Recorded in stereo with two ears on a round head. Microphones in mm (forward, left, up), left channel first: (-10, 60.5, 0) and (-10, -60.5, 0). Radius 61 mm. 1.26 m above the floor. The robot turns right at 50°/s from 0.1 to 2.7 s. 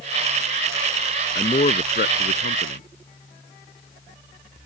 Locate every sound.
1.4 s a man speaking: 30° left; by 2.8 s 95° left